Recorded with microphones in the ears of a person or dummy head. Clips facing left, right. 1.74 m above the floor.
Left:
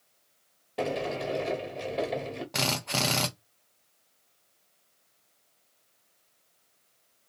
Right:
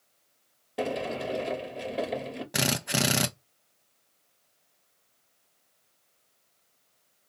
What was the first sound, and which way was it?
A sliding door, 5° right (ahead or behind).